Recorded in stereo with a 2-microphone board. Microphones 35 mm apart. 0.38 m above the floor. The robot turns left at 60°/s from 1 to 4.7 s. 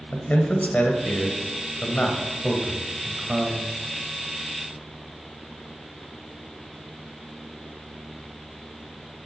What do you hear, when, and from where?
0.1 s a man speaking: 45° left (ahead or behind), 1.6 m; by 3.8 s 35° right (ahead or behind), 1.6 m